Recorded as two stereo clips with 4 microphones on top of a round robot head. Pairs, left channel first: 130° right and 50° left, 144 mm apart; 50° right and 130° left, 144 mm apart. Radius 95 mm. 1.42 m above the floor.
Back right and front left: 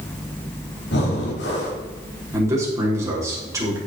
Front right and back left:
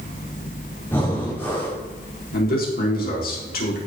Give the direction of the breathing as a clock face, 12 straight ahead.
4 o'clock.